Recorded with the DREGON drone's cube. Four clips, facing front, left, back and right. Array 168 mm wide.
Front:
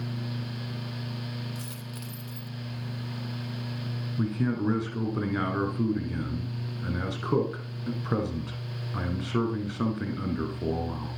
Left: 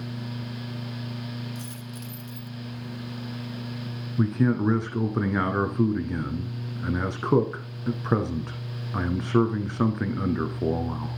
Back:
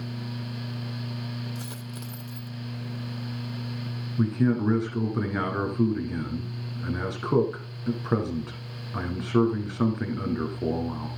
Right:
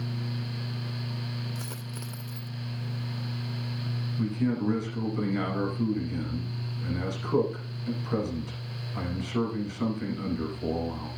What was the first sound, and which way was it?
A dropped coin, 120° right.